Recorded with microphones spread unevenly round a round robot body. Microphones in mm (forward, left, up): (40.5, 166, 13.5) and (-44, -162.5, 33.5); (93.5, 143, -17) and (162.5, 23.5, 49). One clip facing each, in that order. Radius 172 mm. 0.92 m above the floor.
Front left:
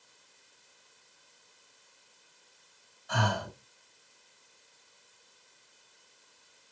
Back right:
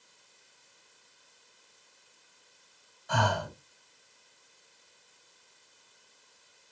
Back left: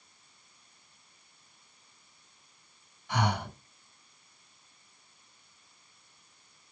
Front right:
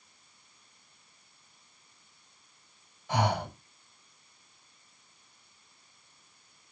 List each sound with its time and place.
3.1 s breathing: 85° right, 2.5 m